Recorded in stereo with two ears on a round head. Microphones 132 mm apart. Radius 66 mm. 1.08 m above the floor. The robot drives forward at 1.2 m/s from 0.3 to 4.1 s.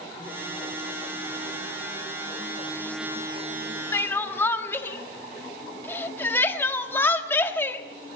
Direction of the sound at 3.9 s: 20° left (ahead or behind).